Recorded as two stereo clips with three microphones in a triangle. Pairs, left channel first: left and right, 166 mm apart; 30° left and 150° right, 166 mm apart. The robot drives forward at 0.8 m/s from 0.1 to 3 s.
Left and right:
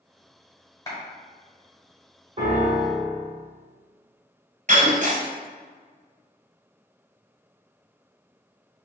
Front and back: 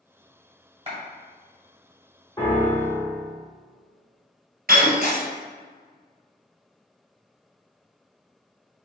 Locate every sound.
0.9 s a clap: 160° left, 1.9 m
2.4 s a piano: 35° right, 1.7 m; by 3.3 s 50° right, 1.4 m
4.7 s breaking glass: 130° right, 1.7 m